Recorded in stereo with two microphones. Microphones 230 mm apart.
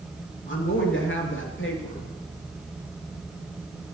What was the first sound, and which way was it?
A woman speaking, 60° left (ahead or behind).